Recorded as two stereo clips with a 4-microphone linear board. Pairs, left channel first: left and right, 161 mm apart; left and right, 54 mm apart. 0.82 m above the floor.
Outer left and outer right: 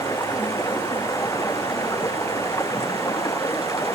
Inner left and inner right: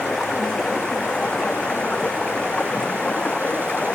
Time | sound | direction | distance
0.0 | running water | 20° left (ahead or behind) | ?